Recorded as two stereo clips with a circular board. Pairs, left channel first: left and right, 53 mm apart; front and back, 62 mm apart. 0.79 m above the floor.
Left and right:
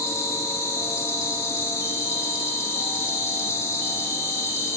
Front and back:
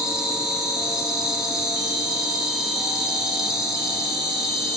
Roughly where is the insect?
Left.